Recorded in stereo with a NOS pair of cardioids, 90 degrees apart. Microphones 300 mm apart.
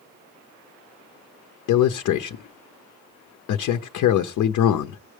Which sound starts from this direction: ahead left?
A man speaking, at 1.7 s.